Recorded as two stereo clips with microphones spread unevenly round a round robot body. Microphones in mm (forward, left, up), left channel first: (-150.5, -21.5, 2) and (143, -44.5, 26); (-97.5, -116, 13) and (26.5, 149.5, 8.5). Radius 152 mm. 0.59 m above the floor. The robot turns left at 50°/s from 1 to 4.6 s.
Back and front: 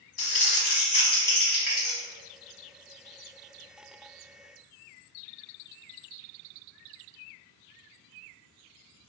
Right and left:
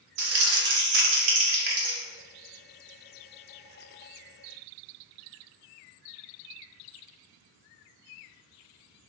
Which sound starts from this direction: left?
Crumpling, at 0.2 s.